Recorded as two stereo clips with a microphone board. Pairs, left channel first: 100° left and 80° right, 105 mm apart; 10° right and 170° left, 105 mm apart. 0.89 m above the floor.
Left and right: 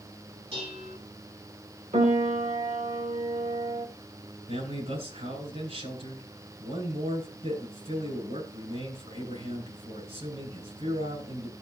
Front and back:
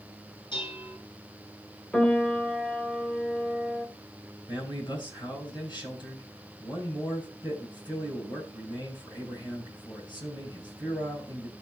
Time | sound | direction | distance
0.5 | dishes clattering | 55° right | 6 m
1.9 | a piano | 95° right | 1.9 m
4.5 | a man speaking | 60° right | 9.5 m